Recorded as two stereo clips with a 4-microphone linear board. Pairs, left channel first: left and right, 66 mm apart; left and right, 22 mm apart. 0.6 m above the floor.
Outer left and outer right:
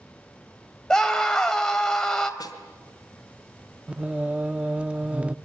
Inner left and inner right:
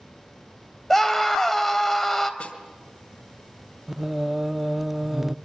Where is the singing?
20° right (ahead or behind), 0.6 m.